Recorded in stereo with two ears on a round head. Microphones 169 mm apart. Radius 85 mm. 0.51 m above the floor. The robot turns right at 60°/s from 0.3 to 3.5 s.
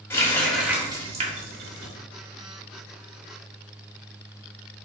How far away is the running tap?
About 1.2 m.